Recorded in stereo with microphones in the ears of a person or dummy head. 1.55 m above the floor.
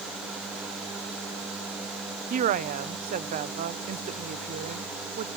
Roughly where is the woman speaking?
Right.